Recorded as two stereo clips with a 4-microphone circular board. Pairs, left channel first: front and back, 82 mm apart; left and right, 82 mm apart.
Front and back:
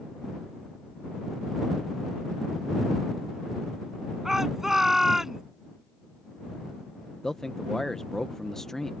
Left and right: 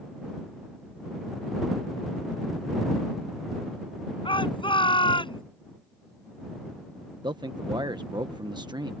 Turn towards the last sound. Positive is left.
turn(degrees=-85)